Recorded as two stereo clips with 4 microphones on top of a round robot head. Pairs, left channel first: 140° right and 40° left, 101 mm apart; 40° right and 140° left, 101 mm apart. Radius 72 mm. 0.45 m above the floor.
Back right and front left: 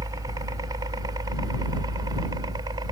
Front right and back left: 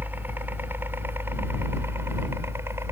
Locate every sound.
0.0 s a helicopter: 75° left; by 2.9 s 80° left